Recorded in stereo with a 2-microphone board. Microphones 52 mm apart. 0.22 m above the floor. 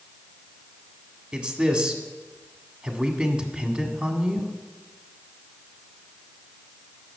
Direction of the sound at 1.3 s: 20° right (ahead or behind).